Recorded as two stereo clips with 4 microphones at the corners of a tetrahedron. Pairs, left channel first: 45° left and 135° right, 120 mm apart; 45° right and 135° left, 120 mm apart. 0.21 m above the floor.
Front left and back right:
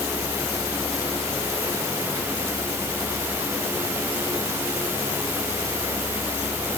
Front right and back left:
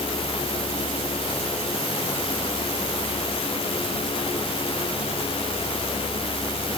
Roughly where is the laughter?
No laughter in this recording.